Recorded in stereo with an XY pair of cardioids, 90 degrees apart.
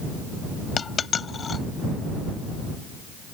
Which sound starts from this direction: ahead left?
A dropped coin, at 0.8 s.